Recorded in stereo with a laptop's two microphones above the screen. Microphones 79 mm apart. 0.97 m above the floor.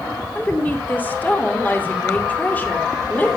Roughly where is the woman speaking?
Left.